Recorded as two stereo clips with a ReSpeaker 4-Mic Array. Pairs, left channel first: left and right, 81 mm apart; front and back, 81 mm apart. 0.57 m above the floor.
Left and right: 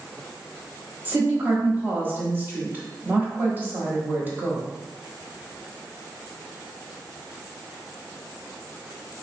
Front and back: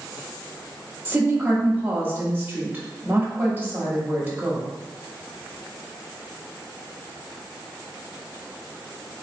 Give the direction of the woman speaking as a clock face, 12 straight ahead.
4 o'clock.